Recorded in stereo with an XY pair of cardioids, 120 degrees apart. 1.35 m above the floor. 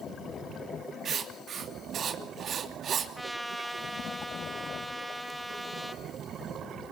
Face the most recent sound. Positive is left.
turn(degrees=5)